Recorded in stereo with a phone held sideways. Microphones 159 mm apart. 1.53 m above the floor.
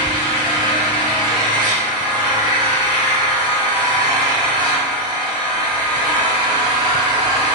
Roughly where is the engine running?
Right.